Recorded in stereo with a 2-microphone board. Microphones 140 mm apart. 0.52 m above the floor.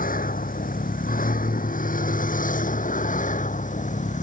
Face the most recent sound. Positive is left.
turn(degrees=65)  # may be behind; listen again after turning